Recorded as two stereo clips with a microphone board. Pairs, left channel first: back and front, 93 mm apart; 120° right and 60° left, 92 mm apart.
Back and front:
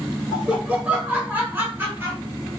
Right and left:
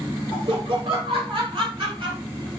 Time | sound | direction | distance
0.3 | laughter | 80° left | 2 m